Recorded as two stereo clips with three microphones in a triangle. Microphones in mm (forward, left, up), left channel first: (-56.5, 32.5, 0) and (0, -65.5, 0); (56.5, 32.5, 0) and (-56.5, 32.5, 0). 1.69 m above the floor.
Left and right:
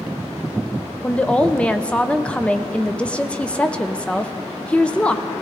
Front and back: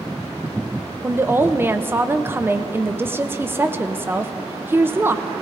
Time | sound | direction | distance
1.0 | a woman speaking | straight behind | 0.6 m